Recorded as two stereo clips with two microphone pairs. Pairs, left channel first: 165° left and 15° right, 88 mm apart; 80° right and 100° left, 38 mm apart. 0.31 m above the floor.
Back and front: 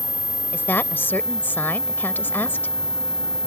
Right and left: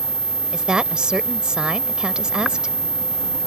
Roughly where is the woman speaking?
Behind left.